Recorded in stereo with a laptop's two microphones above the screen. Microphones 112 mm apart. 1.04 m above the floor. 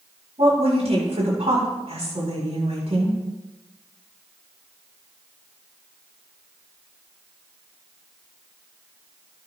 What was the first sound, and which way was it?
A woman speaking, 70° right (ahead or behind).